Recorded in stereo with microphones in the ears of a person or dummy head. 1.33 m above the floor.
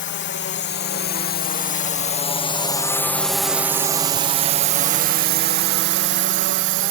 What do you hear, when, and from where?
0.0 s a drone: 55° left (ahead or behind); by 6.9 s 60° right (ahead or behind)